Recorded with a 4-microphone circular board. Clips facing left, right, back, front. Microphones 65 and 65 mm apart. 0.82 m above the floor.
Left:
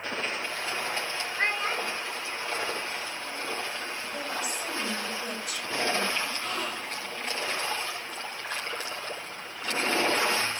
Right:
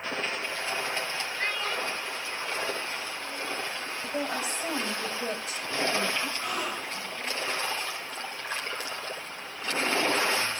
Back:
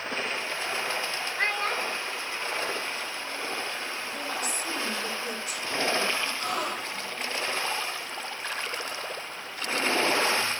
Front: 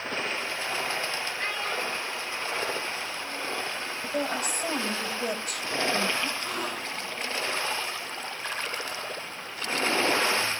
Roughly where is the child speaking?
Behind left.